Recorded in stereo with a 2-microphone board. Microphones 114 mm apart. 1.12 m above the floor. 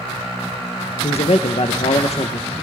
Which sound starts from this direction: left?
A man speaking, at 1.0 s.